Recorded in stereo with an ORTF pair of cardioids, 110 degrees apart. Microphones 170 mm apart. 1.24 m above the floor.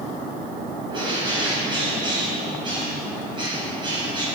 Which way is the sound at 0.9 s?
30° right.